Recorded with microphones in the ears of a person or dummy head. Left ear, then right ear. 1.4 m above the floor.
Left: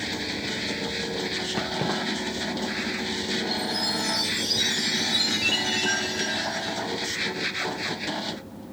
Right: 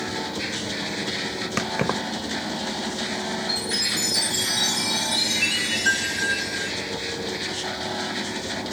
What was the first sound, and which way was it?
Keys jangling, 40° right (ahead or behind).